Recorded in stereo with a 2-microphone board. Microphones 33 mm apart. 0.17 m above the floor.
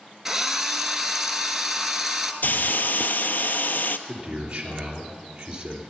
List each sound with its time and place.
0.2 s a drill: 5° right (ahead or behind), 1.3 m
2.4 s a hiss: 65° left (ahead or behind), 0.7 m
4.1 s a man speaking: 25° right (ahead or behind), 3.5 m